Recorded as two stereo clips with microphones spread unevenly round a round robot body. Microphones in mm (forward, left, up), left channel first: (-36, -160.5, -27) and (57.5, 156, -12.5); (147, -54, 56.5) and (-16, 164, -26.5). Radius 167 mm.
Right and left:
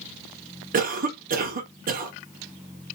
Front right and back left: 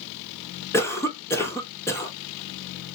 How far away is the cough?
About 0.8 m.